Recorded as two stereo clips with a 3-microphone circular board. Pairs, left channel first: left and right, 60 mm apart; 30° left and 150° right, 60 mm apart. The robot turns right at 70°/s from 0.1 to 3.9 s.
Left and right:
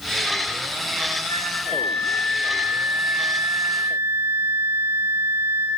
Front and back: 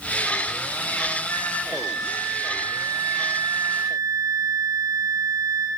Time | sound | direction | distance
1.3 | a flute | 85° left | 6 m